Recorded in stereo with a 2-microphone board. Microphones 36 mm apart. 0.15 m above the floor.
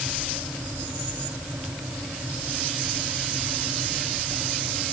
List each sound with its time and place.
Only background noise.